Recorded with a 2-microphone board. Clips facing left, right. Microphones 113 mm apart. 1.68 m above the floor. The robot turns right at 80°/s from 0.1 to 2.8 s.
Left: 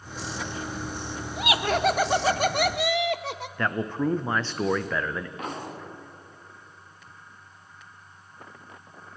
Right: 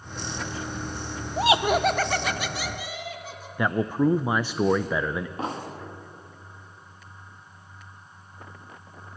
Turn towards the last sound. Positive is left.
turn(degrees=-30)  # may be behind; listen again after turning